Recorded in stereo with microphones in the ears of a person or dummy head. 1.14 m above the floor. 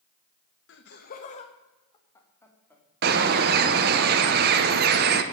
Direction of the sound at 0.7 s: 65° left (ahead or behind).